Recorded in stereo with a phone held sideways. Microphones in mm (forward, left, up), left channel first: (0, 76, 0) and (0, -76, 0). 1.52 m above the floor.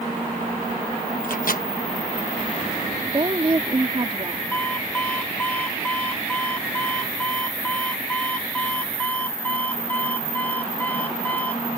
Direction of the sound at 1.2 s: 65° left (ahead or behind).